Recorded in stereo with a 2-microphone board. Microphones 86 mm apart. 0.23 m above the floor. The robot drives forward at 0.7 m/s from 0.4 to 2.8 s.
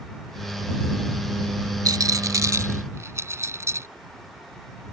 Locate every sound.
1.9 s a rattle: 50° right (ahead or behind); by 3.9 s 35° right (ahead or behind)